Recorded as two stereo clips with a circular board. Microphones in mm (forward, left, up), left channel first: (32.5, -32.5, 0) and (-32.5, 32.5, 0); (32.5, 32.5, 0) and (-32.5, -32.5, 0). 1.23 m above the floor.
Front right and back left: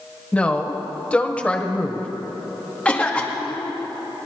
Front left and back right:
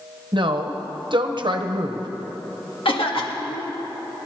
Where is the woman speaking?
120° right, 1.2 m.